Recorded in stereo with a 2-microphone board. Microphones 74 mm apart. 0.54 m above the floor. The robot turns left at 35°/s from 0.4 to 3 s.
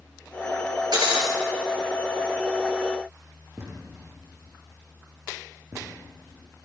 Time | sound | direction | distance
0.9 | breaking glass | 65° right (ahead or behind) | 6 m
3.6 | a thud | 35° right (ahead or behind) | 8.5 m